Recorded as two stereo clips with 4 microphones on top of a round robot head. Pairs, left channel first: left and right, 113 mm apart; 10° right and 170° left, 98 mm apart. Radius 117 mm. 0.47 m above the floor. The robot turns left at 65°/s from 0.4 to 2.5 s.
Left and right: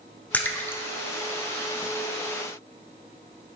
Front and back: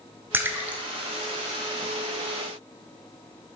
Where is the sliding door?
No sliding door in this recording.